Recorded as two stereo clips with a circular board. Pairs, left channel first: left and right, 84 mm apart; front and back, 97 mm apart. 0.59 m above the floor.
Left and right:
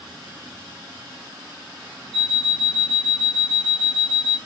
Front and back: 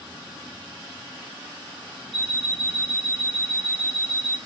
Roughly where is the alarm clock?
Left.